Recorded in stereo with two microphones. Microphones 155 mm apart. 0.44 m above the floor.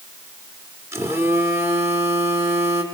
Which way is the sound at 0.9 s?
15° right (ahead or behind).